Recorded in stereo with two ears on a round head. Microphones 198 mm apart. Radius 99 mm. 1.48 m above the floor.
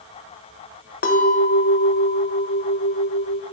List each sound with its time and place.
1.0 s a clink: 45° left (ahead or behind), 0.7 m